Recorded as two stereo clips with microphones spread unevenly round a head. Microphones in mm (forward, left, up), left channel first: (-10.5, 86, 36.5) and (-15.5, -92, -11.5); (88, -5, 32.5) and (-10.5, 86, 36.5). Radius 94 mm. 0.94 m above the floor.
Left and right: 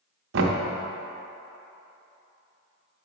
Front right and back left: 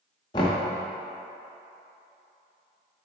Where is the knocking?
110° right, 0.7 m.